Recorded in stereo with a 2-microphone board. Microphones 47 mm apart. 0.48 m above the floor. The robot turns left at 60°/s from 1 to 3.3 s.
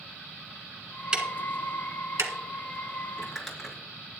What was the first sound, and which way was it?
Ticking, 20° right (ahead or behind).